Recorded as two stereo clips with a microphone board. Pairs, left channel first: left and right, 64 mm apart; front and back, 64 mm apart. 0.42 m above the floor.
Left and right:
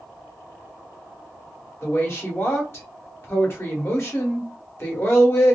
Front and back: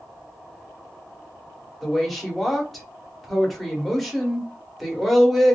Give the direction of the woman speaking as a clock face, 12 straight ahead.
9 o'clock.